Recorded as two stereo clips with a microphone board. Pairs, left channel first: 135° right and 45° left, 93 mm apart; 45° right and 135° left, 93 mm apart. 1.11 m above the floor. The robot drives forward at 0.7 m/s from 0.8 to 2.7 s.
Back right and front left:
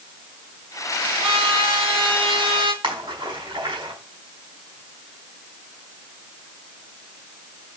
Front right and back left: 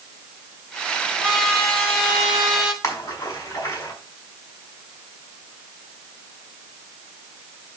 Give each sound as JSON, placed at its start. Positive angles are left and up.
{"t": 1.2, "sound": "a trumpet", "azimuth_deg": 40, "distance_m": 3.5}
{"t": 2.8, "sound": "a splash", "azimuth_deg": 10, "distance_m": 5.0}